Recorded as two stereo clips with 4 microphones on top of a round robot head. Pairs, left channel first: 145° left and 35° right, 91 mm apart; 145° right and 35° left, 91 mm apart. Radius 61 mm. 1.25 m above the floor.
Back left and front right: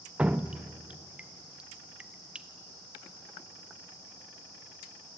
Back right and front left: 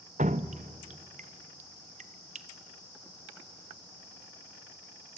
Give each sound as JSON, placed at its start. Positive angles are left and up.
{"t": 0.2, "sound": "dripping", "azimuth_deg": 45, "distance_m": 0.6}